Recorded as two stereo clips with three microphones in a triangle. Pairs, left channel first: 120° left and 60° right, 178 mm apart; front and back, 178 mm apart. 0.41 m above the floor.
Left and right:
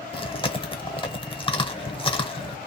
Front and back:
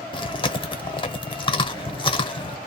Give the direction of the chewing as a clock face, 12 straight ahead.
10 o'clock.